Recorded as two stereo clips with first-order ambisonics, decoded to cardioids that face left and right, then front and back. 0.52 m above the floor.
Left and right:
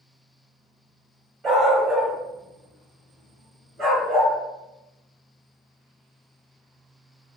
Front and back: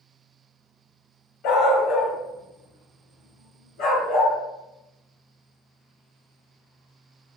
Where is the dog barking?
30° right, 1.0 m.